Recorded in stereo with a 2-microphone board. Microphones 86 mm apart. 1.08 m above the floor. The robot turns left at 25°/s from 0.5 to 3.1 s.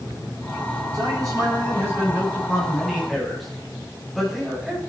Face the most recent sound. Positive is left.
turn(degrees=180)